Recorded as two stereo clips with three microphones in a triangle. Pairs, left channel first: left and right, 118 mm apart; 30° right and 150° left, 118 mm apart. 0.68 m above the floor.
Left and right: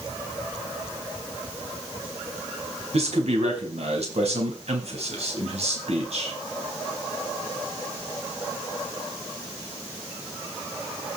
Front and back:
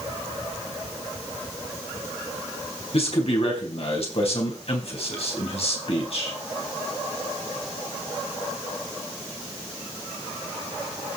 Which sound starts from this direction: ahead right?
A man speaking, at 2.9 s.